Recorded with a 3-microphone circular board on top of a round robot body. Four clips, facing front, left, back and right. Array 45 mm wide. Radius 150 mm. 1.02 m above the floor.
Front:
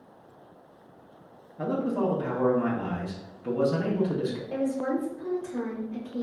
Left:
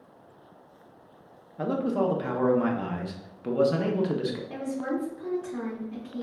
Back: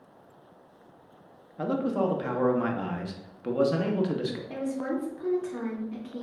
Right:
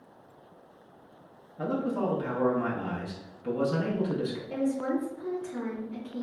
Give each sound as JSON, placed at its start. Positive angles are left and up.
{"t": 1.6, "sound": "a man speaking", "azimuth_deg": 150, "distance_m": 0.8}
{"t": 4.5, "sound": "a woman speaking", "azimuth_deg": 165, "distance_m": 1.5}